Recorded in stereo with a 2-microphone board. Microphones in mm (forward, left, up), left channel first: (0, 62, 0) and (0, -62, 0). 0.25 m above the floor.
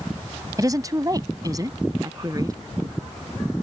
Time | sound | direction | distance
0.6 | a woman speaking | 30° right (ahead or behind) | ?